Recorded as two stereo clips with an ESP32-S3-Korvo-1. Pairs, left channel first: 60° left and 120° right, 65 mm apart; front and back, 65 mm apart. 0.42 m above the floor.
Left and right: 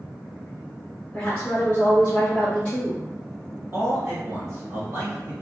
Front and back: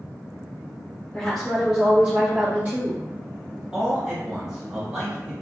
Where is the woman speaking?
35° left, 0.8 m; by 3.0 s 135° left, 1.9 m.